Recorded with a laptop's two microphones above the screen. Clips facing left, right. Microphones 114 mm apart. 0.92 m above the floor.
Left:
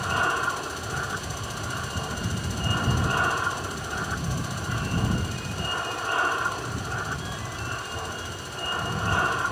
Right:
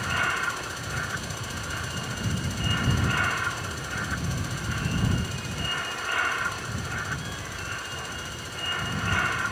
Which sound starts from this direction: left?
An aircraft, at 0.0 s.